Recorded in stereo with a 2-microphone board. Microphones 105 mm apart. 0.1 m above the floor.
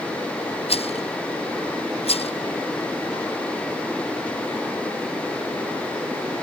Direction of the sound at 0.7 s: 70° left (ahead or behind).